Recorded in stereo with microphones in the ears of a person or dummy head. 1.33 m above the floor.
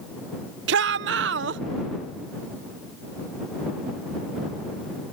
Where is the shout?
65° right (ahead or behind).